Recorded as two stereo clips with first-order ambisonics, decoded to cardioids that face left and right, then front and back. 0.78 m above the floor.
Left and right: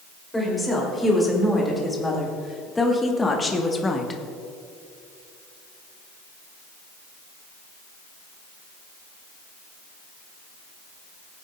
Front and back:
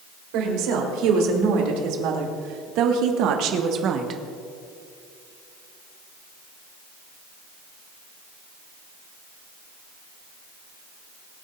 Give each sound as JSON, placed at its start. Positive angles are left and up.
{"t": 0.3, "sound": "a woman speaking", "azimuth_deg": 175, "distance_m": 3.5}